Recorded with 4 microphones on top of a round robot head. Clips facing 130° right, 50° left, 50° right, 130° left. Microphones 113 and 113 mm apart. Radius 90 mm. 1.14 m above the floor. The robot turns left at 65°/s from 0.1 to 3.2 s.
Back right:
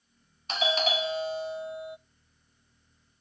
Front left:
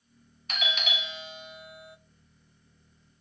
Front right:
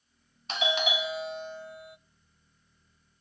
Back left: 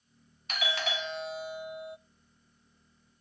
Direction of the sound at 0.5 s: 90° right.